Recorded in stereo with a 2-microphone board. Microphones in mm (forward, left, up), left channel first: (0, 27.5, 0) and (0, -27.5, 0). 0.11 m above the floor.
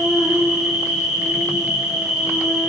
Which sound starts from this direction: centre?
An insect, at 0.0 s.